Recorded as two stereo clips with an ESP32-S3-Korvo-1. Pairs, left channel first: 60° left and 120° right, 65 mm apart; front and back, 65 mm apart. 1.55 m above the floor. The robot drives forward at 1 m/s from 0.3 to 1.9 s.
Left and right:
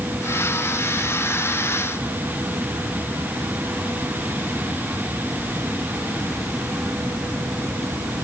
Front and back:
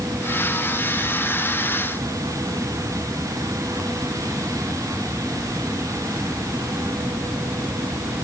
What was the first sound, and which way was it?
Only background noise.